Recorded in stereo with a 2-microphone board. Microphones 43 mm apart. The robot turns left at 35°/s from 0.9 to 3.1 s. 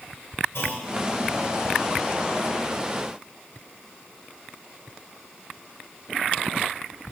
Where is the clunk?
70° left (ahead or behind), 1.5 m.